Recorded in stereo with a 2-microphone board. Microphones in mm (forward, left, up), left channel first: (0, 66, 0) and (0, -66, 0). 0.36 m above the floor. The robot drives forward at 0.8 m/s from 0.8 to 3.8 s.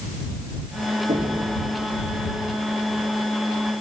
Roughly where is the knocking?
Right.